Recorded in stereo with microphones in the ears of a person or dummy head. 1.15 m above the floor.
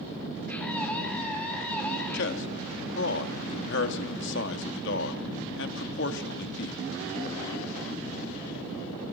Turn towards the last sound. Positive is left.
turn(degrees=60)  # may be behind; listen again after turning